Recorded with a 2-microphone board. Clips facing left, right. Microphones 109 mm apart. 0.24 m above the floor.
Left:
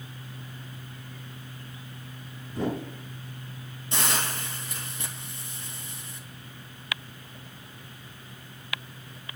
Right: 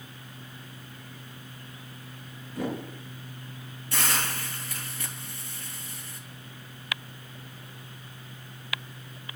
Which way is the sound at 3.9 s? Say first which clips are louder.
Left 1 dB; 20° left (ahead or behind).